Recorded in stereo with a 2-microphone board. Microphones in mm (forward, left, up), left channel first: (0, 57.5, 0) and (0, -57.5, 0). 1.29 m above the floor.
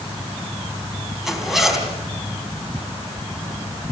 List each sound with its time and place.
1.2 s a zipper: 5° right (ahead or behind), 3.5 m